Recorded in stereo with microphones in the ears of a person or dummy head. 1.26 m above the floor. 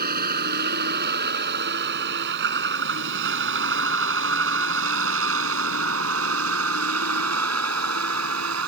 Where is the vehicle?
55° right (ahead or behind); by 8.7 s 85° right.